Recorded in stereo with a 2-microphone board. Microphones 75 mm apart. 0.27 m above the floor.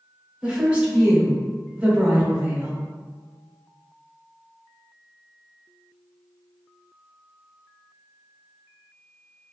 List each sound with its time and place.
0.4 s a woman speaking: 15° right (ahead or behind), 1.0 m